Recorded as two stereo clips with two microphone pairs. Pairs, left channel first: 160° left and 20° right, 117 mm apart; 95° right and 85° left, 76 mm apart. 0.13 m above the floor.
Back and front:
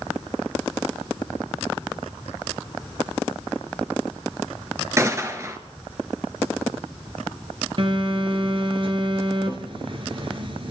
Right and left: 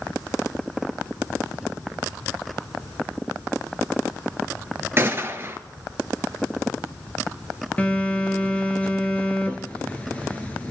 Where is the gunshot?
40° left, 1.5 m.